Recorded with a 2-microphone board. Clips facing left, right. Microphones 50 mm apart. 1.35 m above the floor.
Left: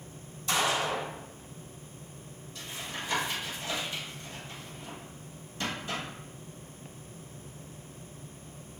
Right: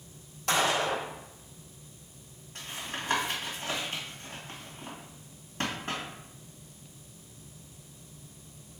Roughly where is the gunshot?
Right.